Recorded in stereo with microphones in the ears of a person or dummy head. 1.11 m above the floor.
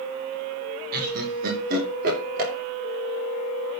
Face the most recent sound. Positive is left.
turn(degrees=-45)  # may be behind; listen again after turning